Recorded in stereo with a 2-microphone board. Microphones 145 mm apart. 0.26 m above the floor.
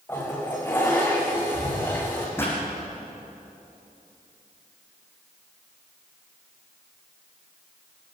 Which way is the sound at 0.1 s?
15° left (ahead or behind).